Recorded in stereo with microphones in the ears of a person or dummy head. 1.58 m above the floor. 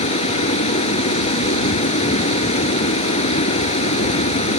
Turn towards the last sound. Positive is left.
turn(degrees=30)  # may be behind; listen again after turning